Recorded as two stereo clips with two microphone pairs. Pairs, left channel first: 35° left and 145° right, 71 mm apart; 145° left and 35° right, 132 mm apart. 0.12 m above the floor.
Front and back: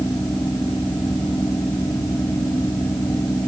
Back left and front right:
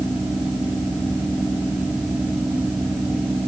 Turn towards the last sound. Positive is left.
No sound to turn to.